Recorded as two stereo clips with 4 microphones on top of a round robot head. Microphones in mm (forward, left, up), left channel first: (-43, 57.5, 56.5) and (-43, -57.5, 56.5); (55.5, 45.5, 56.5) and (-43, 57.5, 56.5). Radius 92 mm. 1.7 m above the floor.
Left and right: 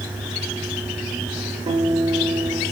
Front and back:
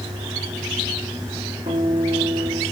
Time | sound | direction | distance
1.7 | a guitar | 135° right | 4.5 m